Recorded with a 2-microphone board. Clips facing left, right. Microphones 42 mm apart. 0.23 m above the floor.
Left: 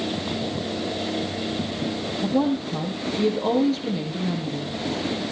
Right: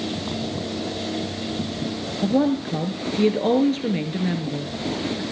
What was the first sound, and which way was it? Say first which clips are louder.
A woman speaking: right 3 dB; 45° right (ahead or behind).